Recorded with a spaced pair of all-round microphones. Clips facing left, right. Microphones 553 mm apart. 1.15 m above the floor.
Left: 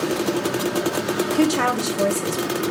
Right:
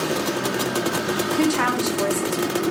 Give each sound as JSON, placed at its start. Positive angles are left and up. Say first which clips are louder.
{"t": 1.4, "sound": "a woman speaking", "louder": "left 1 dB", "side_deg": 55, "distance_m": 0.5}